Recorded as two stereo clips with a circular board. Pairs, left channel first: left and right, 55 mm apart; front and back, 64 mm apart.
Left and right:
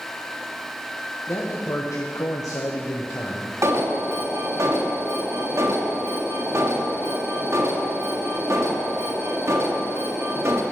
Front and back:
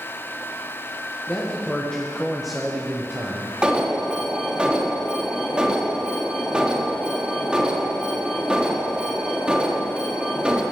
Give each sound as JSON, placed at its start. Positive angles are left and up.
{"t": 1.3, "sound": "a man speaking", "azimuth_deg": 60, "distance_m": 1.7}
{"t": 3.6, "sound": "an alarm", "azimuth_deg": -105, "distance_m": 1.6}